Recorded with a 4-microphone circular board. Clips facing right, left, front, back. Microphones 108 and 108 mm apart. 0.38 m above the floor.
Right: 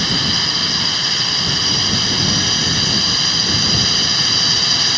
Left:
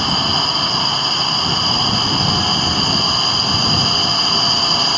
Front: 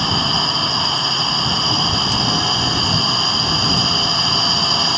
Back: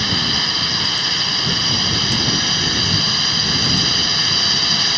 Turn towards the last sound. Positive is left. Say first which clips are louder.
# left 3 dB, front 4 dB
turn(degrees=50)